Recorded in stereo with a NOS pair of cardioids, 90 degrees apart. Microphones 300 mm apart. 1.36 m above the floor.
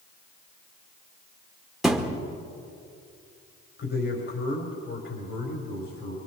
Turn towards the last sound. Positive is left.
turn(degrees=45)